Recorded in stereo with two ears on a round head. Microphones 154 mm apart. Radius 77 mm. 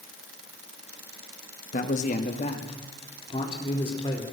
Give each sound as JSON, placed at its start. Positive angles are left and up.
{"t": 1.7, "sound": "a man speaking", "side_deg": 50, "distance_m": 1.8}